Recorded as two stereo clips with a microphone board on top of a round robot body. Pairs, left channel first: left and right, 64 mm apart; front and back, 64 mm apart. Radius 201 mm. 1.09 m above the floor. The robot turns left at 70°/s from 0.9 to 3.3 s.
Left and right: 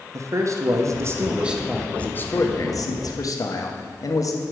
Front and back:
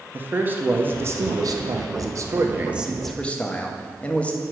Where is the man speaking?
120° right, 1.3 m; by 4.4 s 70° left, 1.3 m.